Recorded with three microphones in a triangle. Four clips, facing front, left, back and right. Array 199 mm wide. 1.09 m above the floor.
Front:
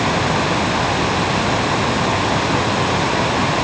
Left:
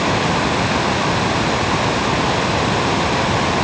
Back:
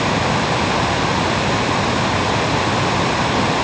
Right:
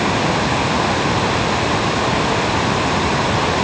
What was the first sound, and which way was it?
Only background noise.